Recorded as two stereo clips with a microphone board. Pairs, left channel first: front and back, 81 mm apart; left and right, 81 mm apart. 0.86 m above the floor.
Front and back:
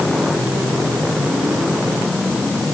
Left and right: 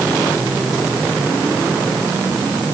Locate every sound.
Only background noise.